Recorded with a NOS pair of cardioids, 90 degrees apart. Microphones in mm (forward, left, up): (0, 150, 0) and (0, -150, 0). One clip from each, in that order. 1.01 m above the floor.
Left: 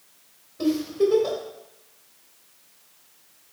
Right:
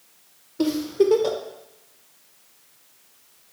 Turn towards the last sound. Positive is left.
turn(degrees=-35)